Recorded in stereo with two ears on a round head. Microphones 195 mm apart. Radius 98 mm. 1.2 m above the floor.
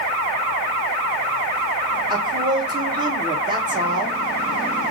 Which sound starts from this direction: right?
A woman speaking, at 2.1 s.